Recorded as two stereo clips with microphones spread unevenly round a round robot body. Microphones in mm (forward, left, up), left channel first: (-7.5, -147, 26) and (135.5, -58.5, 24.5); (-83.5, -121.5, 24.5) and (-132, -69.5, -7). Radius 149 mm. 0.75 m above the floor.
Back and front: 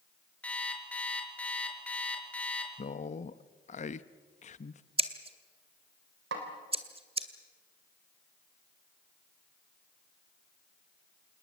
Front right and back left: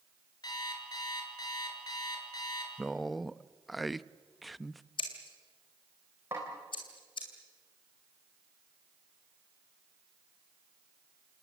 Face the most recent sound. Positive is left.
turn(degrees=60)